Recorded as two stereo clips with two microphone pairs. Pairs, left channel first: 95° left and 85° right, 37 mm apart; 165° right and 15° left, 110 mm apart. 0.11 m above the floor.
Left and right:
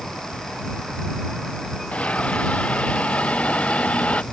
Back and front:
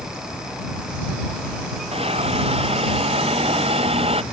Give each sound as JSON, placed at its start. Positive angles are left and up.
{"t": 1.9, "sound": "a hiss", "azimuth_deg": 40}